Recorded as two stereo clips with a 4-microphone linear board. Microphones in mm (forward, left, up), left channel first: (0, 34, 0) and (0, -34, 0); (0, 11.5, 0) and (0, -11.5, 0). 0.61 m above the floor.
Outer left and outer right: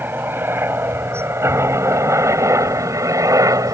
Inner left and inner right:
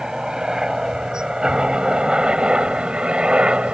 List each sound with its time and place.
0.0 s a helicopter: 35° right (ahead or behind); by 3.7 s 60° right (ahead or behind)